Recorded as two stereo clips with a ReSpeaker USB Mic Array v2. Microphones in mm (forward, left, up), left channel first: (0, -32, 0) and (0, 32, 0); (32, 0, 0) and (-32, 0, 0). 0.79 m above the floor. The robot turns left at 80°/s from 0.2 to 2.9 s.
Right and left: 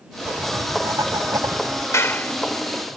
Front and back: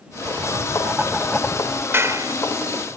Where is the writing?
170° left; by 1.8 s 40° left.